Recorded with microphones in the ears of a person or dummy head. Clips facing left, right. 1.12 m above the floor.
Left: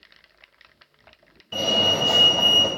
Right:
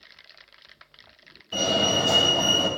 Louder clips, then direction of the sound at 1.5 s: Even; centre (ahead or behind).